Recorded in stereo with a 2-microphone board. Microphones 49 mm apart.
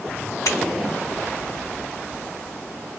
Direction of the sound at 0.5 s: 80° left.